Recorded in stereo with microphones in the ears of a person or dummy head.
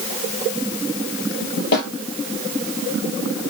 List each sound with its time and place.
1.7 s a snare drum: 70° left (ahead or behind), 7 m